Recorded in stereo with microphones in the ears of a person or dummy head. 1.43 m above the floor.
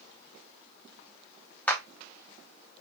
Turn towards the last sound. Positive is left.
turn(degrees=5)  # may be behind; listen again after turning